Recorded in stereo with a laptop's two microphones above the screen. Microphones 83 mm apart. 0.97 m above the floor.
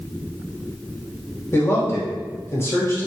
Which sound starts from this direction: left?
A man speaking, at 1.5 s.